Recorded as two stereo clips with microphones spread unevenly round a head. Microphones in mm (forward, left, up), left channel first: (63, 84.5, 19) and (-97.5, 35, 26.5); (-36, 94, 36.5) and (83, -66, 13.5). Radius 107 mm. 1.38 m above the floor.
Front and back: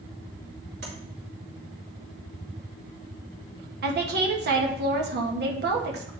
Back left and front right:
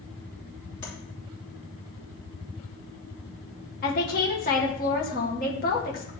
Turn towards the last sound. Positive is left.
turn(degrees=180)